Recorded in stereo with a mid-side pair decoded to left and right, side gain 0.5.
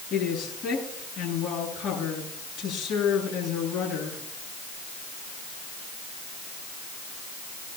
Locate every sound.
0.1 s a woman speaking: 55° left, 9 m